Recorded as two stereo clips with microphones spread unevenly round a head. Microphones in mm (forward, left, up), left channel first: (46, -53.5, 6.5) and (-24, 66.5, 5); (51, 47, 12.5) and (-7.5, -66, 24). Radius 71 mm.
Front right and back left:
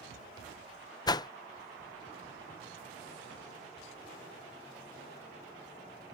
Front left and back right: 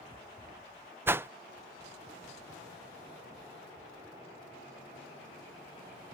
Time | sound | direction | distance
1.1 | a whoosh | 55° right | ?